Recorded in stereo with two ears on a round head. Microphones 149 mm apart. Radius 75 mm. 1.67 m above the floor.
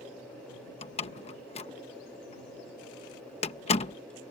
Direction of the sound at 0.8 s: 40° left (ahead or behind).